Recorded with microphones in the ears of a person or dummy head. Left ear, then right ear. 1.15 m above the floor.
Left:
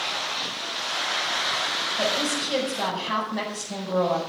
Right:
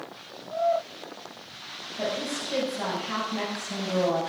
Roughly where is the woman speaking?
Left.